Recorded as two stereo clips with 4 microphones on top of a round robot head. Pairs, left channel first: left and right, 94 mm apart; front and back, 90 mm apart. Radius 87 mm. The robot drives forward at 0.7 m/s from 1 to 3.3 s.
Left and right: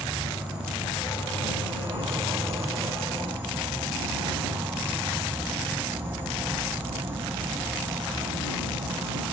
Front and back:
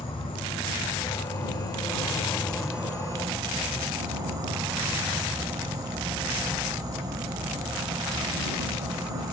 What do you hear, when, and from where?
0.0 s an insect: 15° right, 1.3 m; by 9.3 s 150° right, 0.7 m